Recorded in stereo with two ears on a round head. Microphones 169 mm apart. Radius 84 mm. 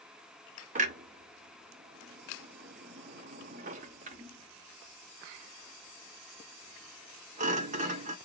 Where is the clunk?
40° right (ahead or behind), 0.5 m.